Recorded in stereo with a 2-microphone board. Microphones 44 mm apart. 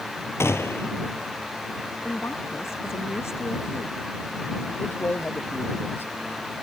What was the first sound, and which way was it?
A gunshot, 80° left.